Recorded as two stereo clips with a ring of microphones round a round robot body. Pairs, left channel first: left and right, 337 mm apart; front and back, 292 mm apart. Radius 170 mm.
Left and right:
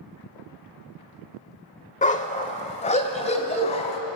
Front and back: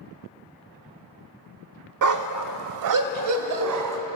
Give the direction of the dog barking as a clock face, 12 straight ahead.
7 o'clock.